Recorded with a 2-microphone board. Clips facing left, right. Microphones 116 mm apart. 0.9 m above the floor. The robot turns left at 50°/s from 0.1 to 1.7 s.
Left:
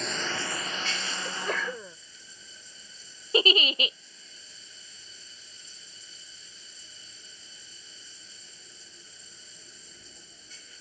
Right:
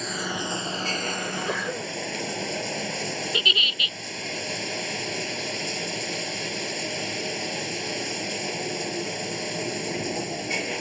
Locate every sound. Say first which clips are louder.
0.0 s running water: right 3 dB; 5° right; by 10.8 s 85° right
1.2 s a sneeze: right 4 dB; 5° left (ahead or behind); by 2.0 s 15° right (ahead or behind)
3.3 s a giggle: left 5 dB; 35° left (ahead or behind)